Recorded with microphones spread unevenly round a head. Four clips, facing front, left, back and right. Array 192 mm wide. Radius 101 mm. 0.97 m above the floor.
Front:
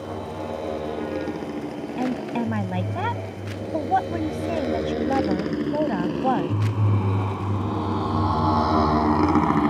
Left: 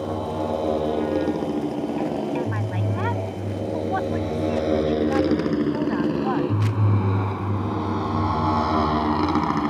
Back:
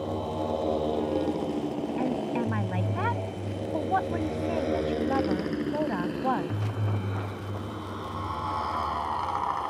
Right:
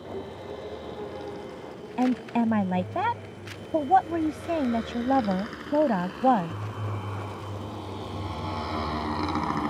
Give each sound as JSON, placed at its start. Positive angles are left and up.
{"t": 0.0, "sound": "a motorcycle", "azimuth_deg": 95}
{"t": 2.0, "sound": "a woman speaking", "azimuth_deg": -75}